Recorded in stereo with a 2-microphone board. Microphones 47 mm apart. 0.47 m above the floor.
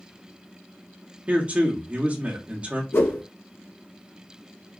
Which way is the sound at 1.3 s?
30° right (ahead or behind).